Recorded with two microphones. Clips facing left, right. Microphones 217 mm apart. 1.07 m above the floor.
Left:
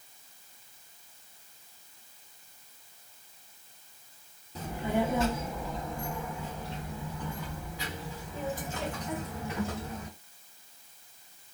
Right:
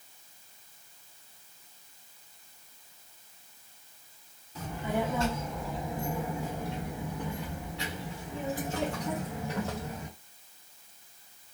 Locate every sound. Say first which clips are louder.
4.5 s a child speaking: left 2 dB; 35° left (ahead or behind), 0.9 m; by 10.1 s 80° right, 2.5 m